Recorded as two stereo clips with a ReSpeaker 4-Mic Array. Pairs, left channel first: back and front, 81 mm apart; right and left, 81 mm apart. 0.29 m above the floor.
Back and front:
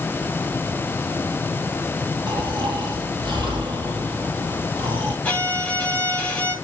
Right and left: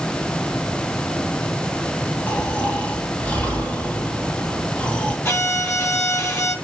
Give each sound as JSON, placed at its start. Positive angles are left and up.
{"t": 2.3, "sound": "snoring", "azimuth_deg": -20, "distance_m": 3.0}
{"t": 5.2, "sound": "a violin", "azimuth_deg": -120, "distance_m": 1.8}